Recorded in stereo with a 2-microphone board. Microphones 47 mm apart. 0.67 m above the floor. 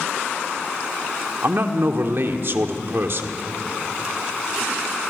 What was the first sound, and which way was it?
A man speaking, 55° right (ahead or behind).